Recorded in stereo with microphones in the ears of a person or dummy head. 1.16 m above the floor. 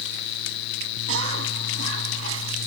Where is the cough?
85° right.